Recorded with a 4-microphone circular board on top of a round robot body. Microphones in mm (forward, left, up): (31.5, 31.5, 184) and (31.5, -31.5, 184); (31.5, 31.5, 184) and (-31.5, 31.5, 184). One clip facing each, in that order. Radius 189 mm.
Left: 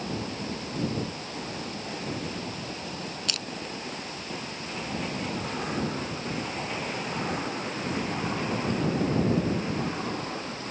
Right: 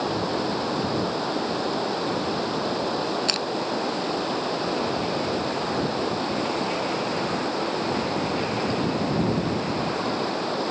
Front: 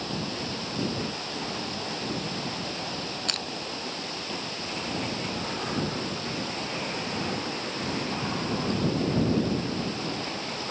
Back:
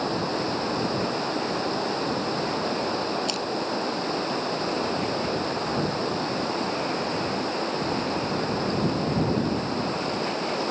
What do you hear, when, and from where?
0.0 s running water: 125° right
3.3 s crushing: 45° right